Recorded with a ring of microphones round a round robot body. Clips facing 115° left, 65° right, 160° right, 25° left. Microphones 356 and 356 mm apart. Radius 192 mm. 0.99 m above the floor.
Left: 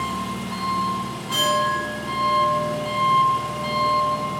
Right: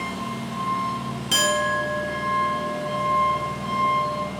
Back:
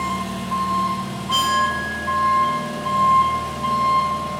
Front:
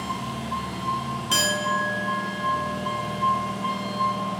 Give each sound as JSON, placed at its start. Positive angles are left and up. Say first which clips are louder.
{"t": 0.0, "sound": "an engine running", "louder": "left 1 dB, back 4 dB", "azimuth_deg": 170, "distance_m": 1.6}
{"t": 1.3, "sound": "a clink", "louder": "even, front 2 dB", "azimuth_deg": -25, "distance_m": 1.0}